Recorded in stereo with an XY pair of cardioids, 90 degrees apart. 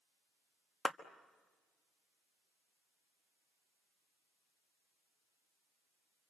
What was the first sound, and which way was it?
A clap, 45° left.